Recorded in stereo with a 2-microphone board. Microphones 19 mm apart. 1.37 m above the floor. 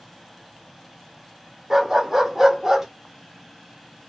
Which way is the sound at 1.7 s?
15° right (ahead or behind).